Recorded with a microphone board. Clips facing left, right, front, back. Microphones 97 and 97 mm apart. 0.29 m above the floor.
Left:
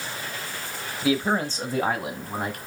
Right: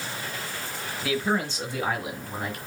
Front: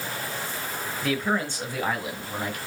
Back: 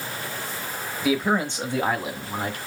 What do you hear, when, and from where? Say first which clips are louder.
1.0 s a man speaking: left 3 dB, back 4 dB; 115° left, 0.9 m; by 2.6 s 120° left, 2.5 m